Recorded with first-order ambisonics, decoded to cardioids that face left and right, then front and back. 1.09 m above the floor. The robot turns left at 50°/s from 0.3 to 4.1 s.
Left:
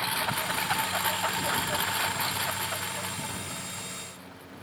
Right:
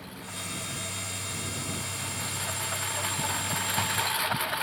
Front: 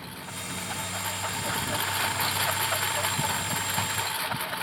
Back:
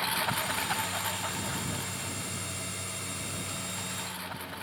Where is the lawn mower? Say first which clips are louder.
Left 11 dB, back 9 dB; 130° left; by 4.6 s 60° right.